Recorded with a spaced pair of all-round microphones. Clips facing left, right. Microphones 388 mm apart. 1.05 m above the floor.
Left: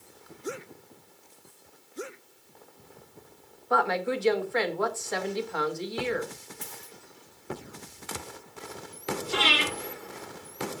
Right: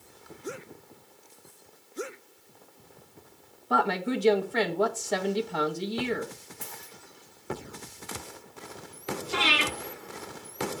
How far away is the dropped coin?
About 4.5 m.